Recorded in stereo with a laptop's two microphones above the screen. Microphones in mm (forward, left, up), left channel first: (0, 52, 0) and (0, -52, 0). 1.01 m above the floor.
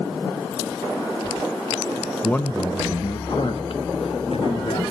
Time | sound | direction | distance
2.2 | a man speaking | 10° left (ahead or behind) | 0.7 m